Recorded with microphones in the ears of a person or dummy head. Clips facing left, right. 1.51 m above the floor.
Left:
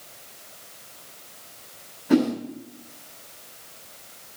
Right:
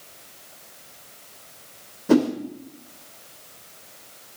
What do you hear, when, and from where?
2.1 s a whoosh: 50° right (ahead or behind), 2.5 m